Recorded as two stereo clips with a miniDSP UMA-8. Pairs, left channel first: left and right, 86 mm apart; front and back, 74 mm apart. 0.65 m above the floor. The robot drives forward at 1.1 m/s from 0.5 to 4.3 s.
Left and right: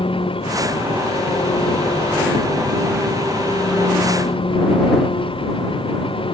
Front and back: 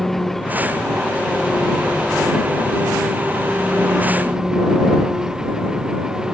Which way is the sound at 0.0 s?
90° left.